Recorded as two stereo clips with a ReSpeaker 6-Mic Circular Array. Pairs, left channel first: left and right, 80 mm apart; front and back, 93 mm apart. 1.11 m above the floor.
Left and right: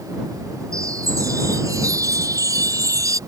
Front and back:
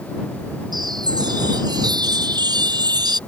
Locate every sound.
0.7 s a chime: 140° right